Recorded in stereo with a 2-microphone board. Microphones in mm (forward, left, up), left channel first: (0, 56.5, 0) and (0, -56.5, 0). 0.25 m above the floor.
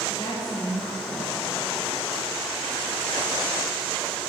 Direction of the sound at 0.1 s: 40° left (ahead or behind).